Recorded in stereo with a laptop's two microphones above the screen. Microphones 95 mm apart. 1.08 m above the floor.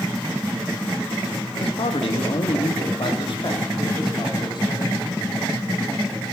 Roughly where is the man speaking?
Left.